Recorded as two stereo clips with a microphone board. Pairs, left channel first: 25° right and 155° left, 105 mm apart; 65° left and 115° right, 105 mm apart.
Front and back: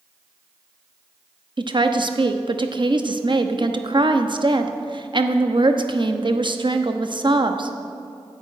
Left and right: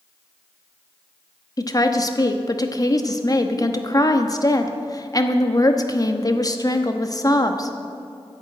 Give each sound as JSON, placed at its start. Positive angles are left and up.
{"t": 1.6, "sound": "a woman speaking", "azimuth_deg": 120, "distance_m": 0.9}